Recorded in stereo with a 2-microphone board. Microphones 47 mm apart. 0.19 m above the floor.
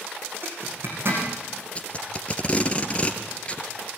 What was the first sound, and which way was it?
A zipper, 50° right (ahead or behind).